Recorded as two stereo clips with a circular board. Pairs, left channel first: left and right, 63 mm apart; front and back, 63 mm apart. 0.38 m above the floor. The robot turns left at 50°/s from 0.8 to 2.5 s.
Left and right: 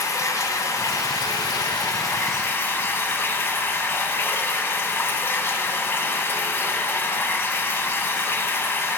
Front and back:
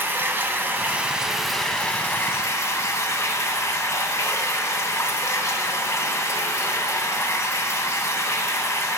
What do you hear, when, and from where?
0.0 s running water: 125° left, 0.7 m; by 9.0 s 40° left, 0.7 m